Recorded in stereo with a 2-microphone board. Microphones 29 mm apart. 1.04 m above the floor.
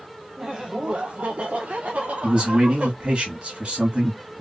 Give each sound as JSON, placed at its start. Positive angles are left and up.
{"t": 0.4, "sound": "laughter", "side_deg": -15, "distance_m": 0.7}
{"t": 2.2, "sound": "a man speaking", "side_deg": -40, "distance_m": 2.0}